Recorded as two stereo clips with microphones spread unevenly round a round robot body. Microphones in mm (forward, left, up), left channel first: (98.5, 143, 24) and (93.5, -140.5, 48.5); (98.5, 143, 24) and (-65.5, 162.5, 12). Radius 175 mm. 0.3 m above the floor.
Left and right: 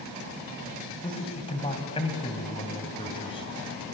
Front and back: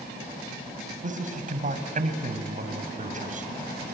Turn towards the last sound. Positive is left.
turn(degrees=160)